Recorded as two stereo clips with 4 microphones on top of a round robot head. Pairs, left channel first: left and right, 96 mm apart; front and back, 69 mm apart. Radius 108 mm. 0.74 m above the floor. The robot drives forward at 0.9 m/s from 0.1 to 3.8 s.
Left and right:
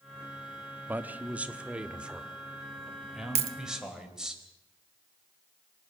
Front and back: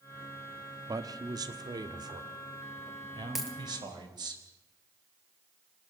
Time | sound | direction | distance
0.9 | a man speaking | 160° right | 1.3 m
3.4 | a dropped coin | 95° right | 1.1 m